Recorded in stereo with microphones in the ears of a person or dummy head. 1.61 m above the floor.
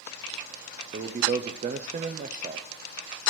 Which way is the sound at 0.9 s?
40° right (ahead or behind).